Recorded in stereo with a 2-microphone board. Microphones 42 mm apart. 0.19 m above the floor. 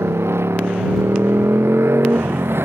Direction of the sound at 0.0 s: 75° right (ahead or behind).